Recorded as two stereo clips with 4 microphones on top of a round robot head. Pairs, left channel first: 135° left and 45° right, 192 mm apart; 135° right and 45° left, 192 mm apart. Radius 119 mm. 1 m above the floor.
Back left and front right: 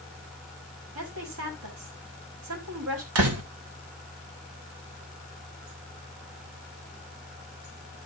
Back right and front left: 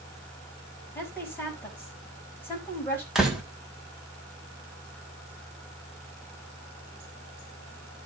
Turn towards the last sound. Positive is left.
turn(degrees=-40)